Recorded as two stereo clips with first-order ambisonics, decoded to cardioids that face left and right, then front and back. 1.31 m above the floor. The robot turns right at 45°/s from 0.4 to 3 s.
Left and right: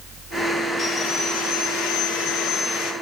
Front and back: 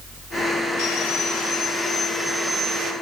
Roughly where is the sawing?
Ahead left.